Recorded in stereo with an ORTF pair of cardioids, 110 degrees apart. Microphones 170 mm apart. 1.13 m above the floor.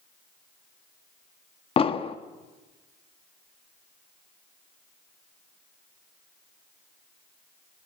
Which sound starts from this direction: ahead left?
An explosion, at 1.8 s.